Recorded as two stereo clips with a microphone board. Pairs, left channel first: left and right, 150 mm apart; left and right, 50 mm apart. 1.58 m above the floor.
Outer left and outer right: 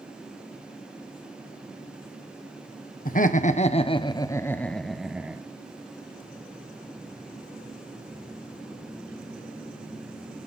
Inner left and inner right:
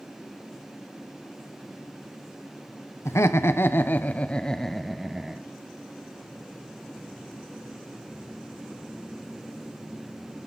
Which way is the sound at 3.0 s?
65° left (ahead or behind).